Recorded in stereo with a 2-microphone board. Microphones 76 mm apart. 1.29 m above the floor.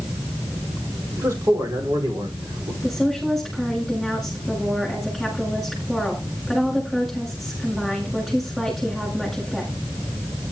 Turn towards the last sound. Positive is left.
turn(degrees=0)  # may be behind; listen again after turning